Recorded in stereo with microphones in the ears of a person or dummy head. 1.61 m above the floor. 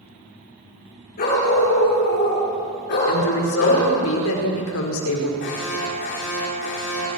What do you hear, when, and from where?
1.2 s a dog barking: 50° left (ahead or behind), 10 m; by 3.9 s 60° left (ahead or behind), 8.5 m
3.1 s a woman speaking: 80° left, 5 m
5.4 s an alarm: 65° left (ahead or behind), 7 m